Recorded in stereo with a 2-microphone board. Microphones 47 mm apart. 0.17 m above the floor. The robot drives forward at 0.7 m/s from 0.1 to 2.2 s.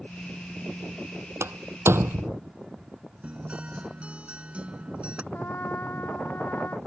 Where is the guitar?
25° right (ahead or behind).